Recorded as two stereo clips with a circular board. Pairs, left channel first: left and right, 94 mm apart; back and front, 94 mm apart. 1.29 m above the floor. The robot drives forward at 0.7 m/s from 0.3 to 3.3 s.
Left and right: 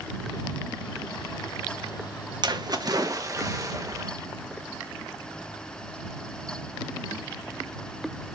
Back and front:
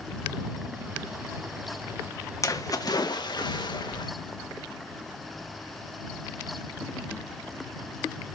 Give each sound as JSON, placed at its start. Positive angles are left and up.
{"t": 2.4, "sound": "a splash", "azimuth_deg": -125, "distance_m": 1.3}